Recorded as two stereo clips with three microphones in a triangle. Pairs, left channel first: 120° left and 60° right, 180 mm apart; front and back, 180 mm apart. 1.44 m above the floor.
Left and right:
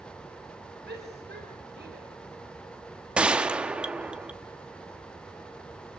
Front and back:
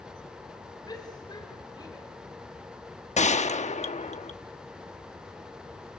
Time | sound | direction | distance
0.9 | a shout | 65° right | 5.5 m
3.2 | a gunshot | 20° left | 1.1 m